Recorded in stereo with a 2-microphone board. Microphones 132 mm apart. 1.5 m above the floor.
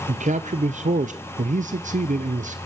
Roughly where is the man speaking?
Right.